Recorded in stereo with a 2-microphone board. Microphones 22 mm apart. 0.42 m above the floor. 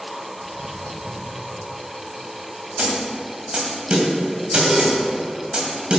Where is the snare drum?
45° right (ahead or behind), 2 m.